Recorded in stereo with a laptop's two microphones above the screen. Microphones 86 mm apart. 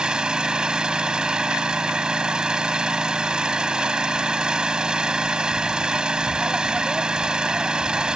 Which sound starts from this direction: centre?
An engine running, at 0.0 s.